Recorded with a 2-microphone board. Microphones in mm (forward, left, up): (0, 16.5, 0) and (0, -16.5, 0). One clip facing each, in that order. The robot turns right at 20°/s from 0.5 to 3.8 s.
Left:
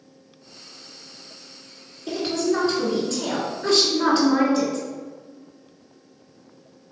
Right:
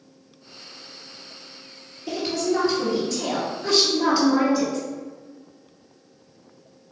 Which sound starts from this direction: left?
A woman speaking, at 2.1 s.